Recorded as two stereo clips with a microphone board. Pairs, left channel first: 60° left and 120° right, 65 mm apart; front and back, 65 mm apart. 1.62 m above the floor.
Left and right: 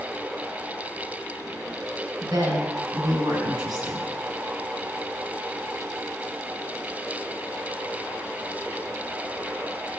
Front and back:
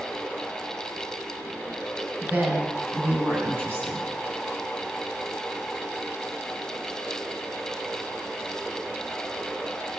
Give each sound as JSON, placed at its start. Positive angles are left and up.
{"t": 2.2, "sound": "a woman speaking", "azimuth_deg": -115, "distance_m": 9.5}